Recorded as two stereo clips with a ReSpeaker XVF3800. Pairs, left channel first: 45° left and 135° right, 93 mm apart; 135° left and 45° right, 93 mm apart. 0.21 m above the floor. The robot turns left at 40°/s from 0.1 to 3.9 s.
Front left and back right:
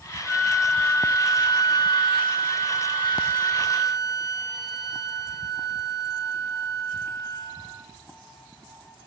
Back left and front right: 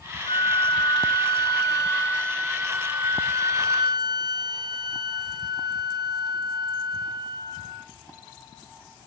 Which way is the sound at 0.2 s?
135° left.